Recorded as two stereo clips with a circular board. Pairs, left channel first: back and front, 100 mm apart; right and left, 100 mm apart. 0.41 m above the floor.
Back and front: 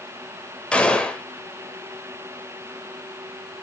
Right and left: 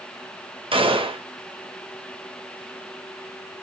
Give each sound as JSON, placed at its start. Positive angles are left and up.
{"t": 0.7, "sound": "a gunshot", "azimuth_deg": 100, "distance_m": 0.5}